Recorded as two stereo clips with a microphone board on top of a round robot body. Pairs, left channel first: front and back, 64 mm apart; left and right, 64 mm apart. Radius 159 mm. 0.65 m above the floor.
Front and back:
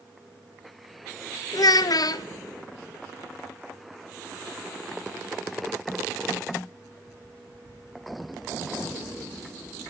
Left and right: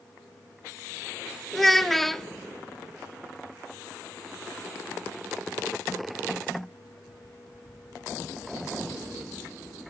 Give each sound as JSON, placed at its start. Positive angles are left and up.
{"t": 1.5, "sound": "a child speaking", "azimuth_deg": 0, "distance_m": 0.7}